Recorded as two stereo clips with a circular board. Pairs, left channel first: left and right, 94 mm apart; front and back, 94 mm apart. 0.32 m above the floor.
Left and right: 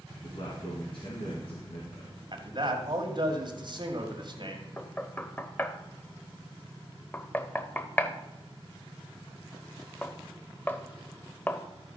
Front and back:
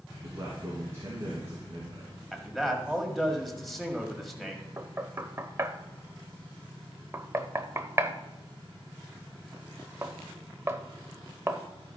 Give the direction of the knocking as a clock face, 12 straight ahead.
7 o'clock.